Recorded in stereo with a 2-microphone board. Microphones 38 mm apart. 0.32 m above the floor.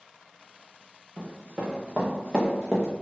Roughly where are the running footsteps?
Right.